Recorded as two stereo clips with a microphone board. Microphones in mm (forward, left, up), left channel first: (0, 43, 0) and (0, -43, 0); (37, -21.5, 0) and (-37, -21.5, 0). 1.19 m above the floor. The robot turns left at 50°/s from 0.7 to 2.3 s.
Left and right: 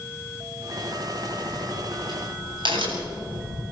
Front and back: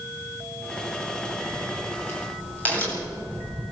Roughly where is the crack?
Ahead.